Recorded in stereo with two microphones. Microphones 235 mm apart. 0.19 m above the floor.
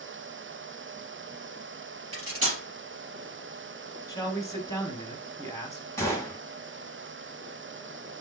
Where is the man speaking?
15° left (ahead or behind), 1.0 m.